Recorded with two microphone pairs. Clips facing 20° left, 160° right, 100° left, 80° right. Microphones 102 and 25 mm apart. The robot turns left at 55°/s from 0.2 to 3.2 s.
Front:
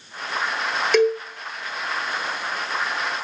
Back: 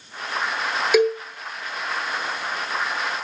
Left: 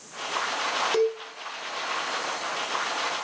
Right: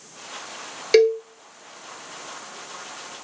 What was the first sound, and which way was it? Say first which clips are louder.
A cowbell: even, right 12 dB; 75° right.